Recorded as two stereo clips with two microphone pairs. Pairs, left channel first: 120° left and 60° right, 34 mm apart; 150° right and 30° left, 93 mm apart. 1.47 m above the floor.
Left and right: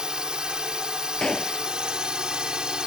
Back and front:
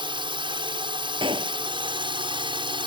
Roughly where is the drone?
Ahead.